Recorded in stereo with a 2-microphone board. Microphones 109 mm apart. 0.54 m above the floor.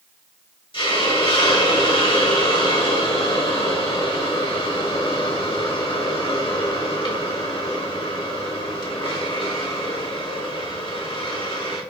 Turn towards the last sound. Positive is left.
turn(degrees=50)  # may be behind; listen again after turning